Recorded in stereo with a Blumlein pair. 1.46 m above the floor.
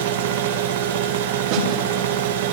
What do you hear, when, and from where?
0.0 s a machine running: 55° right, 1.9 m
1.5 s a snare drum: 45° right, 3.5 m